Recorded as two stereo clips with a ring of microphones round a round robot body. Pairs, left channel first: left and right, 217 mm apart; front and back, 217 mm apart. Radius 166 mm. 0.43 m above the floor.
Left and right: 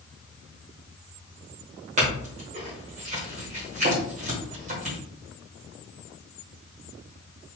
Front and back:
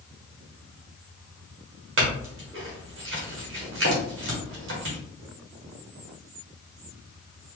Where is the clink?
150° right, 1.3 m.